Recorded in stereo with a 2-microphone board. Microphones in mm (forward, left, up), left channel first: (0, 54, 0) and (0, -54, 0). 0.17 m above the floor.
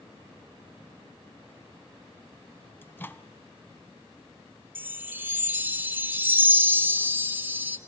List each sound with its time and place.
2.8 s a microwave: 20° left (ahead or behind), 0.9 m
4.8 s a chime: 20° right (ahead or behind), 0.9 m